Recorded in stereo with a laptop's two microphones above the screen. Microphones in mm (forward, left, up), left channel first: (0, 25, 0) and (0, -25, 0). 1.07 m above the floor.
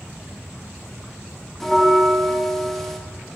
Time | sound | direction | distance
1.6 | a bell | 5° left (ahead or behind) | 0.6 m